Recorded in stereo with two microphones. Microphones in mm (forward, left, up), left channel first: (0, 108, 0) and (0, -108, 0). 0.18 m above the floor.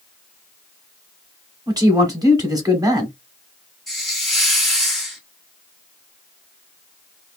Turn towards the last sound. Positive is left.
turn(degrees=0)  # may be behind; listen again after turning